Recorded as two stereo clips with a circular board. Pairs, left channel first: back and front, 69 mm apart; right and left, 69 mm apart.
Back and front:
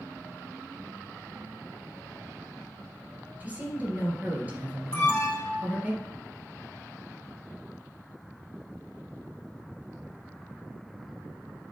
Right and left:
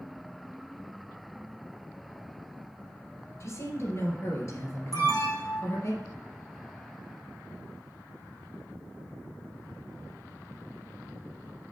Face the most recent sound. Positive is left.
turn(degrees=-110)